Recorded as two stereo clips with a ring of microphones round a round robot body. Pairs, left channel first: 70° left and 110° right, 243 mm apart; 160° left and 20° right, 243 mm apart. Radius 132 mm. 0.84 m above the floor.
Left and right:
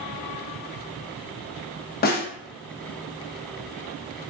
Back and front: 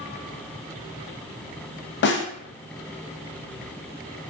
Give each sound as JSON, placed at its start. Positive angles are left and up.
{"t": 2.0, "sound": "a snare drum", "azimuth_deg": 120, "distance_m": 0.6}